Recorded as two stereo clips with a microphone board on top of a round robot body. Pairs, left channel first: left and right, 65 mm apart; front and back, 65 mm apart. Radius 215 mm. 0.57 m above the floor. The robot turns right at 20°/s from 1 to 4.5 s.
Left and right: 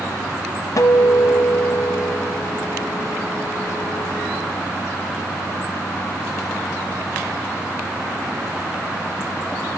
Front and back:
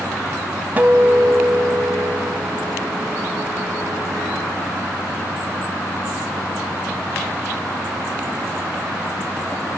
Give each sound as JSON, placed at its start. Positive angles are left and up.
{"t": 0.8, "sound": "a guitar", "azimuth_deg": 115, "distance_m": 0.8}